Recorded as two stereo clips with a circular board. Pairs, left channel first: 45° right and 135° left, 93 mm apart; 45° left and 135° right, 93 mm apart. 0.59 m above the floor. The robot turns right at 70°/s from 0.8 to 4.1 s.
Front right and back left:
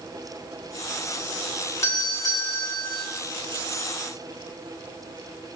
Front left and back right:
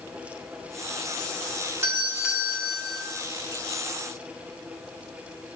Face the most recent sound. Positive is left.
turn(degrees=70)